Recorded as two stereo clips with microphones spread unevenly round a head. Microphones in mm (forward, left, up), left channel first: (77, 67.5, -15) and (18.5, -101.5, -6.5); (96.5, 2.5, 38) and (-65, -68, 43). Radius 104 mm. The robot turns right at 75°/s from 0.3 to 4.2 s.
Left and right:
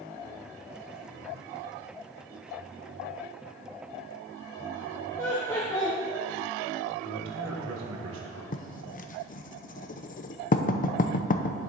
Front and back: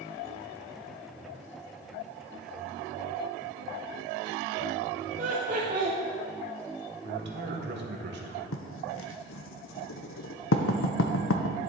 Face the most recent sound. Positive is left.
turn(degrees=30)